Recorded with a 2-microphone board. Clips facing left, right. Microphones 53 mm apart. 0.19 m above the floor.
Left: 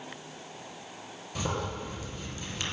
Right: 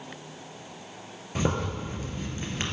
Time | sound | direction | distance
1.4 | a zipper | 35° right (ahead or behind) | 2.5 m